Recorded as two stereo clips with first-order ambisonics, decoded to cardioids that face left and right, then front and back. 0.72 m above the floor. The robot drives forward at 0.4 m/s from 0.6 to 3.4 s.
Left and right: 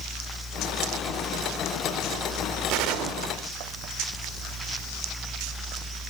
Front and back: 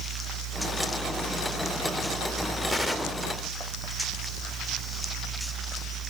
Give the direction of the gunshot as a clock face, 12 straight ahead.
3 o'clock.